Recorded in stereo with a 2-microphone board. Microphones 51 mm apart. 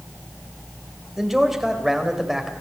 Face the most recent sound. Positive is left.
turn(degrees=-5)  # may be behind; listen again after turning